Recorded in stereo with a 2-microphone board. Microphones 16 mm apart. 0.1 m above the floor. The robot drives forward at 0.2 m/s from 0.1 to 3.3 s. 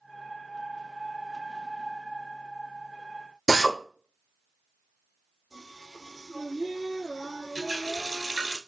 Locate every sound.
3.5 s a drill: 5° right (ahead or behind), 1.1 m
5.5 s singing: 10° left (ahead or behind), 1.8 m
7.5 s a running tap: 35° right (ahead or behind), 0.9 m